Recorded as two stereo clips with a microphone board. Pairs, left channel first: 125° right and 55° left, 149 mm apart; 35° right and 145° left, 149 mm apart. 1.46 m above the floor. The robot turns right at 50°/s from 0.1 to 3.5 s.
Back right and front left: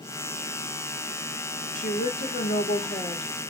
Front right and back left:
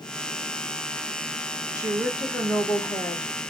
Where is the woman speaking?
155° right, 1.0 m; by 3.3 s 75° right, 1.0 m.